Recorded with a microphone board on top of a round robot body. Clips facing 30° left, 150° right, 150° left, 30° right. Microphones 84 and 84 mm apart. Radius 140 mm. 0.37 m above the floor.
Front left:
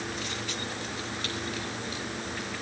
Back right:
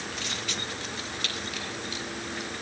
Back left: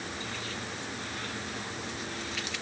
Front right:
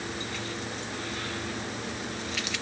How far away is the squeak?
I don't hear a squeak.